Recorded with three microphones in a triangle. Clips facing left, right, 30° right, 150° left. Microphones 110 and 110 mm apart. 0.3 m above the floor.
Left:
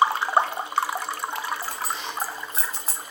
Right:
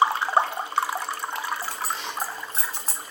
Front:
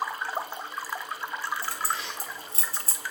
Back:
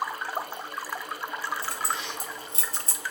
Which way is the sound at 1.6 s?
140° right.